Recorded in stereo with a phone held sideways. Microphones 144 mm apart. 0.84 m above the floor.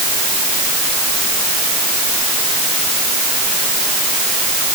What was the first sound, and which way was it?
Only background noise.